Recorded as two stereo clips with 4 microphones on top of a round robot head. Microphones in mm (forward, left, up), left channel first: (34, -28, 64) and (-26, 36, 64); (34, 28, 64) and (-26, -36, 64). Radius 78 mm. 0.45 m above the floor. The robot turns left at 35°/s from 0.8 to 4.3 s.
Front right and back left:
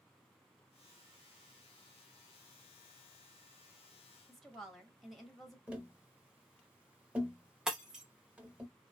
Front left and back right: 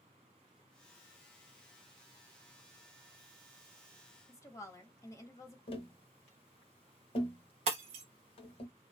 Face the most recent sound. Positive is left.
turn(degrees=-145)